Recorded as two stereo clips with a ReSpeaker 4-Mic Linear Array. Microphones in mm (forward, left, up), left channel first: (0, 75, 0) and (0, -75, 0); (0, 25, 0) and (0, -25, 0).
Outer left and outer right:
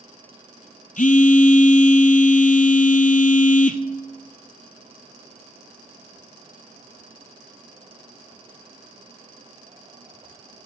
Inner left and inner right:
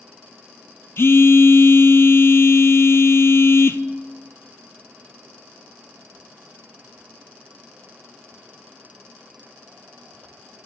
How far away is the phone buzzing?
About 0.6 m.